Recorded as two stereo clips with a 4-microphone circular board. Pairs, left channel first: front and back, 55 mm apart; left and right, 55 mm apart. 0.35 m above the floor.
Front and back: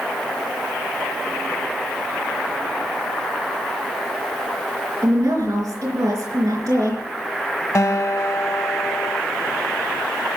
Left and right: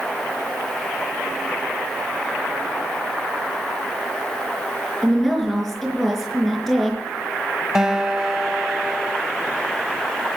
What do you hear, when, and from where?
5.0 s a woman speaking: straight behind, 4 m
7.8 s a guitar: 10° right, 1.0 m